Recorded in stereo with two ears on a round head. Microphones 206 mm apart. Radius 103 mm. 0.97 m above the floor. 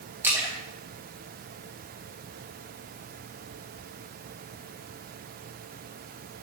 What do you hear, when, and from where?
0.2 s a splash: 10° right (ahead or behind), 2 m